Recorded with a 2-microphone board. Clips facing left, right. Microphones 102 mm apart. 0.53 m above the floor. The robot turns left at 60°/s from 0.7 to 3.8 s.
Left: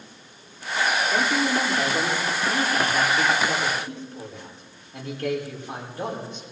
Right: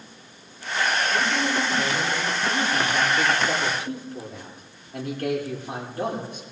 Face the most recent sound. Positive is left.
turn(degrees=-65)